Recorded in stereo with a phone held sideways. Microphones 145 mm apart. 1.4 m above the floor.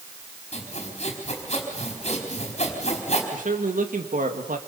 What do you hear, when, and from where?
0.5 s sawing: 55° left (ahead or behind), 4.5 m
3.3 s a man speaking: 80° right, 2 m